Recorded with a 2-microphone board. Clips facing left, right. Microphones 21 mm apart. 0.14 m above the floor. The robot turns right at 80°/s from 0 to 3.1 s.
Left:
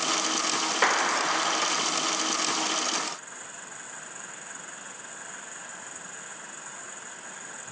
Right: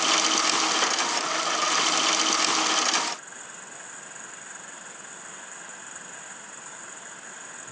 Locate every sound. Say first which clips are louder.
0.8 s a clap: left 1 dB; 20° left; by 1.7 s 95° left